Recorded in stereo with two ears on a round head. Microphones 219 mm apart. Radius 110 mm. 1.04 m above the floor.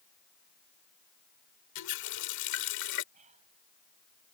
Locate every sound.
1.8 s a running tap: 90° left
3.1 s whispering: 30° right (ahead or behind)